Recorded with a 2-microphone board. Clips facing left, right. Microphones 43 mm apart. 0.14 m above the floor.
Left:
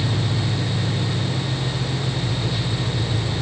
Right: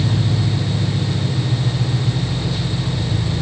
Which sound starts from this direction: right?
An engine running, at 0.0 s.